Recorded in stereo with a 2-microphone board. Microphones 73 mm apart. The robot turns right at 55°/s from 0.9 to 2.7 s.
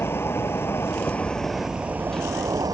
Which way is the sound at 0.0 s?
145° left.